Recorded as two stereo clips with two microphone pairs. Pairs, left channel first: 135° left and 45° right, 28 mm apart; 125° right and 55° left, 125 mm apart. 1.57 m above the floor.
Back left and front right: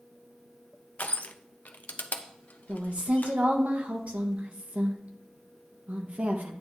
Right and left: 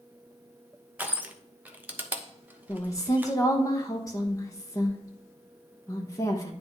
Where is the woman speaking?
60° right, 1.3 m.